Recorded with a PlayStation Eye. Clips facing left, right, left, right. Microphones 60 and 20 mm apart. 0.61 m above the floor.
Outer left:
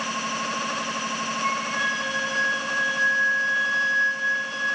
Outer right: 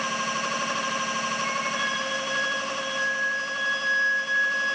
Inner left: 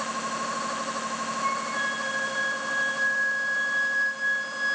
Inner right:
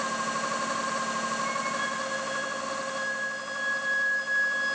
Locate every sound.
1.4 s a flute: 40° left (ahead or behind), 2 m